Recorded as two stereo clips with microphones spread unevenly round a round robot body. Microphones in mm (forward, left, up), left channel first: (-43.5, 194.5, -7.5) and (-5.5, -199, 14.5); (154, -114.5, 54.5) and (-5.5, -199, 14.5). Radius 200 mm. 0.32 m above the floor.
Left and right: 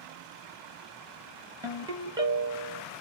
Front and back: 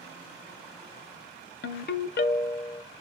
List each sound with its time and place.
1.6 s a ringtone: 5° right, 0.6 m